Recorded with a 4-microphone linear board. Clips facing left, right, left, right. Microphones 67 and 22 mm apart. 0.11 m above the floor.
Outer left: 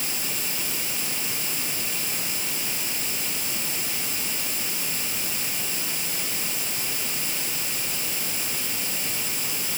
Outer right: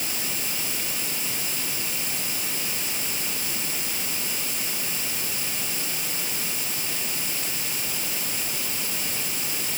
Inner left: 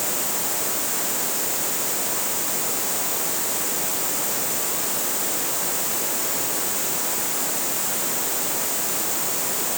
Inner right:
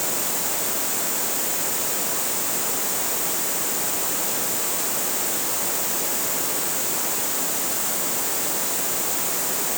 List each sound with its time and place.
Only background noise.